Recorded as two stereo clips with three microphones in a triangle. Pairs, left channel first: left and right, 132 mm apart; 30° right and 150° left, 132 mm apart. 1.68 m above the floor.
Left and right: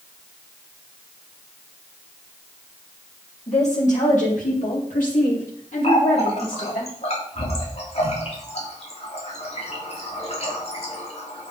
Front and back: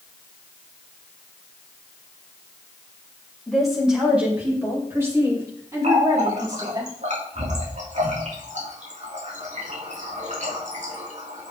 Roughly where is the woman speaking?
Ahead left.